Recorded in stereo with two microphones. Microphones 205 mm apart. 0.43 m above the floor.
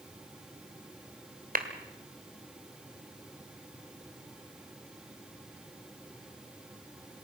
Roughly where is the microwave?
No microwave in this recording.